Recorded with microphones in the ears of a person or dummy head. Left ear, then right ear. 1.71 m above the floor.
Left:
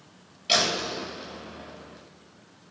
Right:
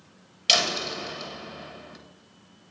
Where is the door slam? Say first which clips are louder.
Right 2 dB; 65° right (ahead or behind), 3 m.